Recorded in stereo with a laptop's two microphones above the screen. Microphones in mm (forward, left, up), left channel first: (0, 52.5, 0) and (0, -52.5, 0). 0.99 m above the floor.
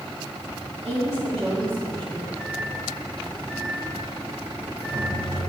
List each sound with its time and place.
0.8 s a woman speaking: 70° right (ahead or behind), 1.9 m; by 2.3 s 40° right (ahead or behind), 1.4 m
2.4 s a microwave: 60° right (ahead or behind), 2 m